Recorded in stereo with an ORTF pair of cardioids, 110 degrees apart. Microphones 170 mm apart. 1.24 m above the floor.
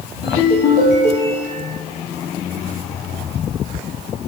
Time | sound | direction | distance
0.2 | a ringtone | 65° left | 1.3 m